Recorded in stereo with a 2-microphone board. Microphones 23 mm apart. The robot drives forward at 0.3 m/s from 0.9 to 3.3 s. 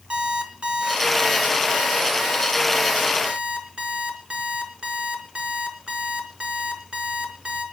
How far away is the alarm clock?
About 3 m.